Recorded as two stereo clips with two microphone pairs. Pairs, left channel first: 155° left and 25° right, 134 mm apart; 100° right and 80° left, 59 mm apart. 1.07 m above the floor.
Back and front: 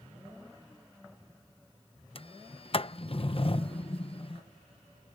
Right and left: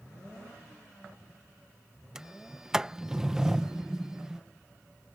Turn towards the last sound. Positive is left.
turn(degrees=155)